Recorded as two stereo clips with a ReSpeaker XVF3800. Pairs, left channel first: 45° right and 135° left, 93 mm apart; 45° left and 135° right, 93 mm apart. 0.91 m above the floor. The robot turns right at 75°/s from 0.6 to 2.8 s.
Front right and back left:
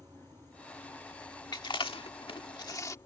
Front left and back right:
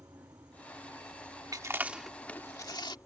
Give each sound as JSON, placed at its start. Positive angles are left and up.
{"t": 0.0, "sound": "an insect", "azimuth_deg": 180}
{"t": 1.5, "sound": "chewing", "azimuth_deg": -90}